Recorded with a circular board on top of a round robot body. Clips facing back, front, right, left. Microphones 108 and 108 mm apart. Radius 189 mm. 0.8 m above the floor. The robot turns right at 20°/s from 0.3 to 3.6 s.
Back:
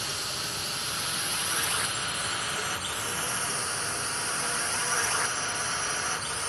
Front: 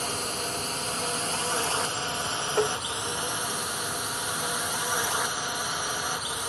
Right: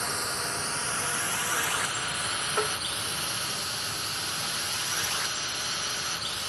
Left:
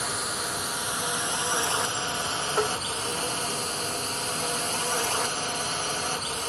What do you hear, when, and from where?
0.0 s a drone: 5° left; by 6.5 s 75° left
2.6 s tapping: 10° left; by 2.8 s 15° left